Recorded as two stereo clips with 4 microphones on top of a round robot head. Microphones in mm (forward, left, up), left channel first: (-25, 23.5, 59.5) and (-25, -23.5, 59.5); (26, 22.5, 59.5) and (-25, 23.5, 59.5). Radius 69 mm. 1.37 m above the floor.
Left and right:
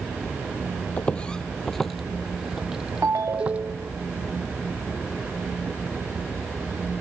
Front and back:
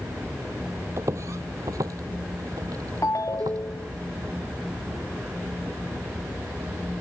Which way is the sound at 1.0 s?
150° left.